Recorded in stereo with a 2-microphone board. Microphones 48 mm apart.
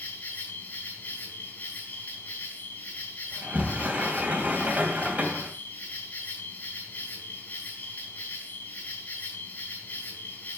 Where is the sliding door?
35° right (ahead or behind), 2.5 m.